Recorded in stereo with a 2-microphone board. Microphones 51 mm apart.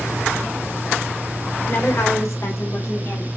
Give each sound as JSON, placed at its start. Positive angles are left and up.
{"t": 1.7, "sound": "a woman speaking", "side_deg": 55, "distance_m": 2.5}